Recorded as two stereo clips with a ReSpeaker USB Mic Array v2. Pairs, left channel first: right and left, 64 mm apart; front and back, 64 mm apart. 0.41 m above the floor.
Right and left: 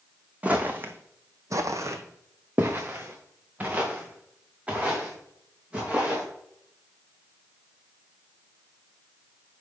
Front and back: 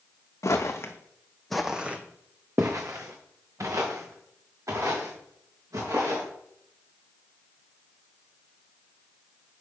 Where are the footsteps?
25° left, 1.1 m; by 6.2 s 160° left, 4.5 m.